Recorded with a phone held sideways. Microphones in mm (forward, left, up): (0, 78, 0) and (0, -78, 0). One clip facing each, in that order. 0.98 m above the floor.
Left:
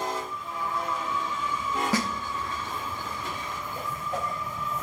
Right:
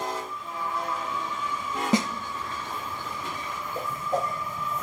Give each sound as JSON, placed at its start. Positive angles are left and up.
{"t": 1.9, "sound": "a snare drum", "side_deg": -20, "distance_m": 0.7}
{"t": 3.8, "sound": "a whoosh", "side_deg": -35, "distance_m": 0.9}